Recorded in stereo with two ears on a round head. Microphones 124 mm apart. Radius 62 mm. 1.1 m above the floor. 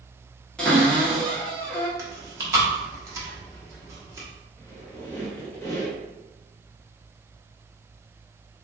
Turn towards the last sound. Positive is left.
turn(degrees=20)  # may be behind; listen again after turning